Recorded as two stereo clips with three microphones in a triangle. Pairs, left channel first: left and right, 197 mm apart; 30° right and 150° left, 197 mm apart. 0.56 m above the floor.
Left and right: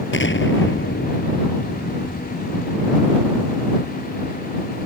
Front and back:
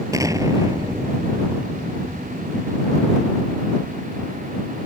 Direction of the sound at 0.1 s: 75° left.